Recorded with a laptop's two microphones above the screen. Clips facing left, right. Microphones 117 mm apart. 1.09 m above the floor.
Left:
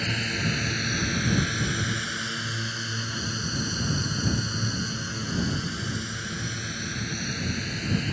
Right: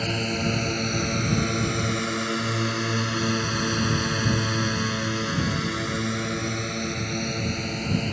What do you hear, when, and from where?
0.0 s a drone: 40° right (ahead or behind); by 8.1 s 45° right (ahead or behind)